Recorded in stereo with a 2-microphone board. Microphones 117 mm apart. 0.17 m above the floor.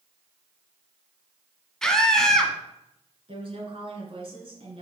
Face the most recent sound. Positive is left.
turn(degrees=-50)  # may be behind; listen again after turning